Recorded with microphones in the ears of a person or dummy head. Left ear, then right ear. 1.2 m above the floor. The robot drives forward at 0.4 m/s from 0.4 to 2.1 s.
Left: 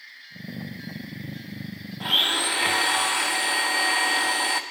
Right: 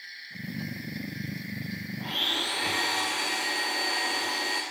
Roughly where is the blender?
Left.